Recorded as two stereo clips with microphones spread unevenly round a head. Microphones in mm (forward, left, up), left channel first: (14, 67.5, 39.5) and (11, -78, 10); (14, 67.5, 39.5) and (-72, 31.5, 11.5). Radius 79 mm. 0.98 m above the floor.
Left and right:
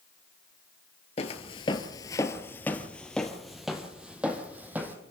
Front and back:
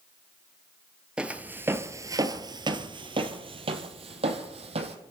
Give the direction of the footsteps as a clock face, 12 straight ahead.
8 o'clock.